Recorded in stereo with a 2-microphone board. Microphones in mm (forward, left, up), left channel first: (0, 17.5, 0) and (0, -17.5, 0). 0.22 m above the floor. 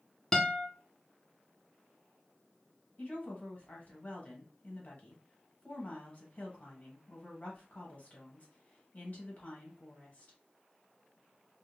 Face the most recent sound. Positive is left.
turn(degrees=40)  # may be behind; listen again after turning